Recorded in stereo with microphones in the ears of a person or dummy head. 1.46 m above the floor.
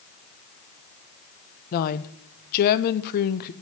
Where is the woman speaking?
50° left (ahead or behind), 0.6 m.